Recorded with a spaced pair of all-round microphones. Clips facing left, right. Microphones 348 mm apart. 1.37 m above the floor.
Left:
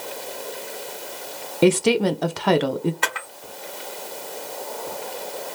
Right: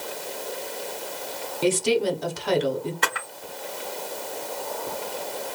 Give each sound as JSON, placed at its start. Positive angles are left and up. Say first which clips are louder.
{"t": 1.6, "sound": "a woman speaking", "louder": "left 5 dB", "side_deg": 70, "distance_m": 0.7}
{"t": 3.0, "sound": "a camera shutter", "louder": "even", "side_deg": -25, "distance_m": 1.2}